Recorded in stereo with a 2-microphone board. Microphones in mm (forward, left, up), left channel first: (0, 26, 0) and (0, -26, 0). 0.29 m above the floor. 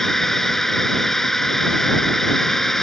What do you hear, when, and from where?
0.0 s a drone: 5° left (ahead or behind)